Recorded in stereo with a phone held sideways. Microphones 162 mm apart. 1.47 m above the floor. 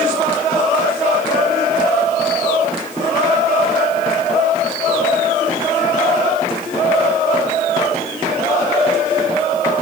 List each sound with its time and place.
Only background noise.